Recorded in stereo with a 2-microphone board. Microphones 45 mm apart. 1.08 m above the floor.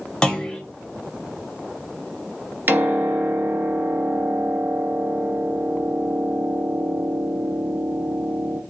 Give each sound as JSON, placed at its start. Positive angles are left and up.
{"t": 0.2, "sound": "a clunk", "side_deg": 20, "distance_m": 0.9}
{"t": 2.7, "sound": "a piano", "side_deg": -50, "distance_m": 0.6}